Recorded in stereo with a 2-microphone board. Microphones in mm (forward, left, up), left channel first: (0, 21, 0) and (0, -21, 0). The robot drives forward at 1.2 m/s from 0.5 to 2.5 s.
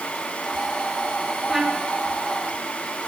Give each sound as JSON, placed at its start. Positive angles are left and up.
{"t": 1.5, "sound": "a trumpet", "side_deg": -10, "distance_m": 3.5}